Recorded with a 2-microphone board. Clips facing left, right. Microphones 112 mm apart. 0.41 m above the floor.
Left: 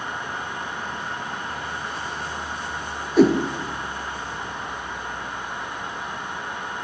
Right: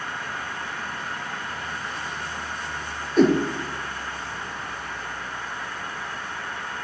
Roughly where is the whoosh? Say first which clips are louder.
Left 2 dB; centre.